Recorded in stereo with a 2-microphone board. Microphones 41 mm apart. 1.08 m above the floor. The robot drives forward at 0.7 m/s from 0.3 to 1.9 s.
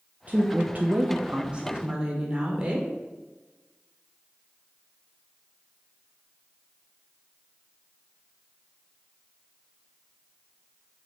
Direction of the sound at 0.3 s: 35° right (ahead or behind).